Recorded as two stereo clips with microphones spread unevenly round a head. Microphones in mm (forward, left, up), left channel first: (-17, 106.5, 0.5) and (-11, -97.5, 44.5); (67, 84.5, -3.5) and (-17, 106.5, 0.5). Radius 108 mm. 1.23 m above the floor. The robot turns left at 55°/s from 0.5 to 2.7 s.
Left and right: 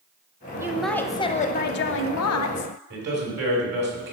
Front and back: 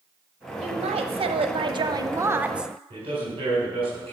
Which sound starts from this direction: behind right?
A man speaking, at 2.9 s.